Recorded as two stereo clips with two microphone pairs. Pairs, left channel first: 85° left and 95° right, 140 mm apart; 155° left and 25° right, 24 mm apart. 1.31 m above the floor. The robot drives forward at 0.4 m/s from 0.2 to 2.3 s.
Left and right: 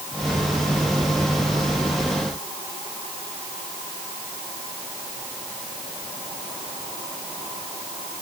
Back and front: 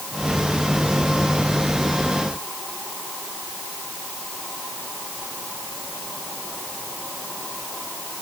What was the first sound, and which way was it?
Only background noise.